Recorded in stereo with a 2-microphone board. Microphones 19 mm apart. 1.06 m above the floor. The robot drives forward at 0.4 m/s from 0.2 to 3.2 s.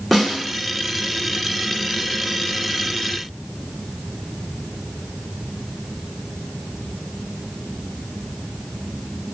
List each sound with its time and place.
0.1 s a snare drum: 5° right (ahead or behind), 1.4 m